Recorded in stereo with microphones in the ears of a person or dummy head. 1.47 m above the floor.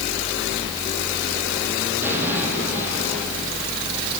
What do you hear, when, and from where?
2.0 s an explosion: 15° right (ahead or behind), 10 m